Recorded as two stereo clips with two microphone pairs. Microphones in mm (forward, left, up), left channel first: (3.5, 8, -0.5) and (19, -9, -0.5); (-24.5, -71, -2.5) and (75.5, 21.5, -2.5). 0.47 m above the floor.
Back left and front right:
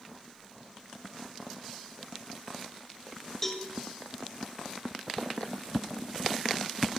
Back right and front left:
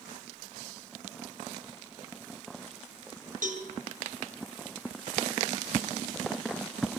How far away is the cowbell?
About 2.5 m.